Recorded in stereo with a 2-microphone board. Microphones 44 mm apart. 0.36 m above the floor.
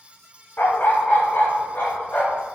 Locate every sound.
0.6 s a dog barking: 45° left (ahead or behind), 0.5 m; by 2.5 s 60° left (ahead or behind), 1.6 m